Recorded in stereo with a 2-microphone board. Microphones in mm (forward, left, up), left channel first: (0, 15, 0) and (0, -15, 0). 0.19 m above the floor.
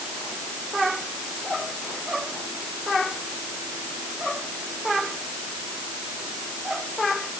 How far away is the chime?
I don't hear a chime.